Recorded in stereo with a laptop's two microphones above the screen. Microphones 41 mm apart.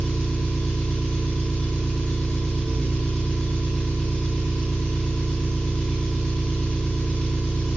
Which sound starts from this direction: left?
An engine running, at 0.0 s.